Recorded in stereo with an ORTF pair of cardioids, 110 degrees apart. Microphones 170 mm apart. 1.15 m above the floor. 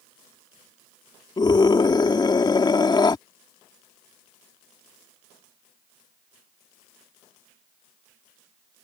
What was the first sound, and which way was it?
A scream, 25° left.